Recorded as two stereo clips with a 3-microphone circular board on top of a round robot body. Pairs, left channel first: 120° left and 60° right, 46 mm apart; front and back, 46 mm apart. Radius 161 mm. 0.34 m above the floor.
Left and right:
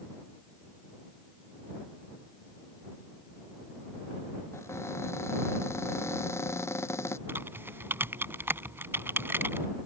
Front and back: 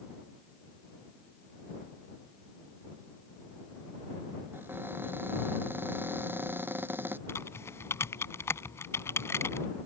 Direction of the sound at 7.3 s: 20° right.